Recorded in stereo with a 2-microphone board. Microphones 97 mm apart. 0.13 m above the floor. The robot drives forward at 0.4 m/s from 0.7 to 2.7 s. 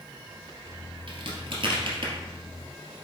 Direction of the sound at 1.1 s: 60° right (ahead or behind).